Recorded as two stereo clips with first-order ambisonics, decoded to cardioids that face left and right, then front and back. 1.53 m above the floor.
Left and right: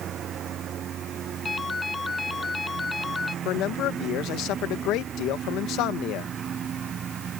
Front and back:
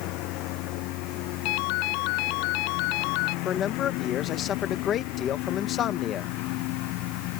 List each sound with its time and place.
0.0 s a lawn mower: 30° right; by 7.4 s 25° right
1.4 s a ringtone: 15° left
3.5 s a man speaking: 55° left